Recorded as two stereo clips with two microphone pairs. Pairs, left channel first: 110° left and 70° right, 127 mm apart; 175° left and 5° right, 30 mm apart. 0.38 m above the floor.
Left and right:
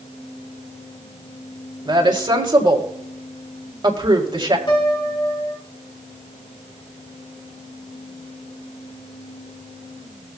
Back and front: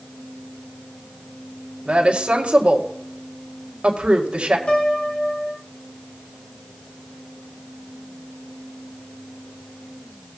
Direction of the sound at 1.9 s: 35° right.